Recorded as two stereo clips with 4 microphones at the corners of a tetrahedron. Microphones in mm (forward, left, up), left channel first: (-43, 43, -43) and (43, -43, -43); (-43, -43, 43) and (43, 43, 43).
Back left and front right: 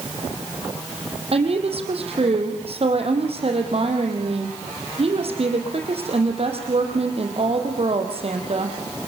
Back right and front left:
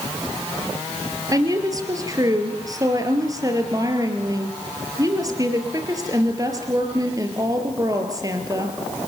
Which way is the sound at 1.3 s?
15° right.